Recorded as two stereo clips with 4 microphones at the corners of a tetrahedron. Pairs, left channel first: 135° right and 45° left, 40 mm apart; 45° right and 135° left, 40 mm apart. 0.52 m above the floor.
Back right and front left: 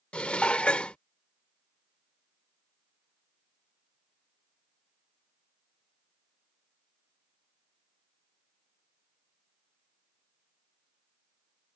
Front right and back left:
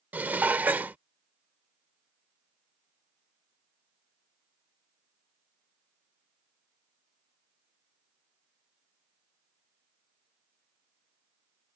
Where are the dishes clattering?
170° left.